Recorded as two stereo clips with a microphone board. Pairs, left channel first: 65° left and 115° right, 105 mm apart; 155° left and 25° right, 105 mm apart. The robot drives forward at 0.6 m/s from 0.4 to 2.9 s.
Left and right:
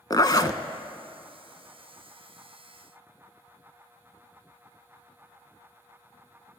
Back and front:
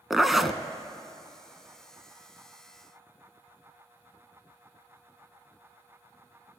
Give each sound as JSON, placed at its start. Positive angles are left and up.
{"t": 0.1, "sound": "a zipper", "azimuth_deg": 65, "distance_m": 0.6}